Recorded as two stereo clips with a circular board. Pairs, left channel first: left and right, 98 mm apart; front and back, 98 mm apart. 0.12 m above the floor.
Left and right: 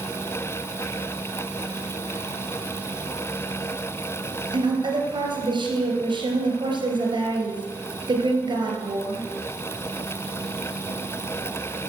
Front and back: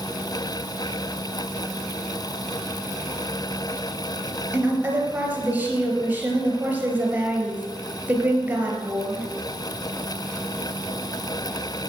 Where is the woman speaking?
110° right, 2.5 m.